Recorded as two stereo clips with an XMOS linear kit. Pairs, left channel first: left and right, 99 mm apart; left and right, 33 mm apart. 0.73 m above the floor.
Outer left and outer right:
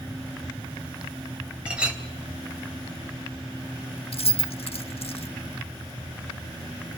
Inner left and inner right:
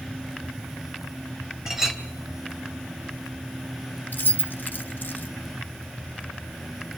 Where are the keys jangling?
80° left, 1.0 m.